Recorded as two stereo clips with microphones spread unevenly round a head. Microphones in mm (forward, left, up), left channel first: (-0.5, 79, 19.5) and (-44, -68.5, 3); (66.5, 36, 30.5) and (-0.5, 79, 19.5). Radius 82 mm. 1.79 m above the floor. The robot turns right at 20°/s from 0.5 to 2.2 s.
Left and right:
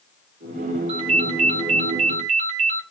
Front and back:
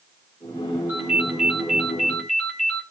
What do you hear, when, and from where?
0.9 s a ringtone: 135° right, 1.5 m; by 2.8 s 110° right, 1.5 m